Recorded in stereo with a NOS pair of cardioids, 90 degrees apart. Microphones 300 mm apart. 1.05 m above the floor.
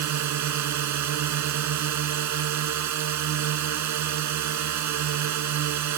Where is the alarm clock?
No alarm clock in this recording.